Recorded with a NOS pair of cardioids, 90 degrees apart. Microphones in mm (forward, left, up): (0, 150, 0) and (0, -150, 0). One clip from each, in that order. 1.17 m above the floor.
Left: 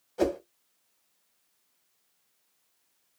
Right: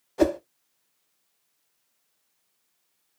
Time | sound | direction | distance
0.2 | a whoosh | 20° right | 0.5 m